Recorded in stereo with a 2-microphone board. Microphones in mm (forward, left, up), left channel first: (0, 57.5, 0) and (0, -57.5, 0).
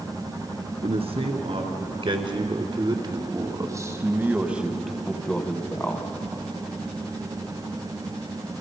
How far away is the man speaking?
About 3 m.